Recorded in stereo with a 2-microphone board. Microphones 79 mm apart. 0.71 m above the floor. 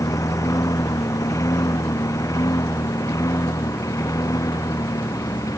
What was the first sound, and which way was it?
A lawn mower, 45° left (ahead or behind).